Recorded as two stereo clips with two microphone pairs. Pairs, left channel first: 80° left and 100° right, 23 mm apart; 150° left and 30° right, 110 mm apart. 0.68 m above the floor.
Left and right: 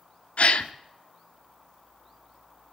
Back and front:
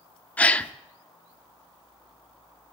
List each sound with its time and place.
0.4 s a gasp: 75° left, 0.7 m